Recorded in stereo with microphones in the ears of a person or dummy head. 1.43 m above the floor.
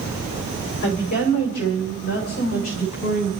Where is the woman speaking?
55° left (ahead or behind), 4 m; by 3.3 s 50° left (ahead or behind), 5.5 m.